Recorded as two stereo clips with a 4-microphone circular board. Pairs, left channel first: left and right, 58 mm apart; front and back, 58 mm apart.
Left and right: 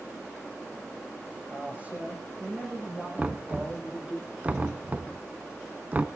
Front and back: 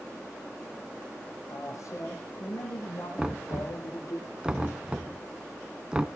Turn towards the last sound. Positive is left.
turn(degrees=-120)